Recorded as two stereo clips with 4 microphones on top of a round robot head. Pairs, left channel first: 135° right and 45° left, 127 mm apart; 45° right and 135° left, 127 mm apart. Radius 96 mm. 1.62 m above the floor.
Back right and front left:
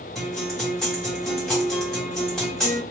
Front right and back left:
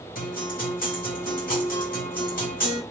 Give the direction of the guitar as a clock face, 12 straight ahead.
2 o'clock.